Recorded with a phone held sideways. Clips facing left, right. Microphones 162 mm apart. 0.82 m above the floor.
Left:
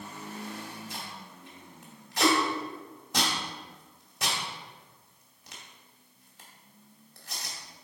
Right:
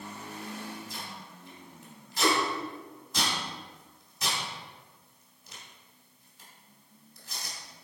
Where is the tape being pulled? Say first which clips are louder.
Left 1 dB; 80° left, 2 m.